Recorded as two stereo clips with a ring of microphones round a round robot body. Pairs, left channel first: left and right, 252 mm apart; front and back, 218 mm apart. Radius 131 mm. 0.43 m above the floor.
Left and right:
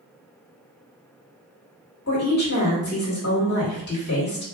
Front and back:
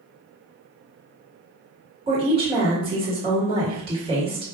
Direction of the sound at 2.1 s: 125° left.